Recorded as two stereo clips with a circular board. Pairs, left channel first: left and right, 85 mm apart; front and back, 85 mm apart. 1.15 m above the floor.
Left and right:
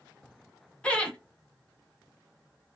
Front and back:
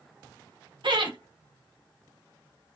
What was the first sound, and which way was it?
Laughter, 170° left.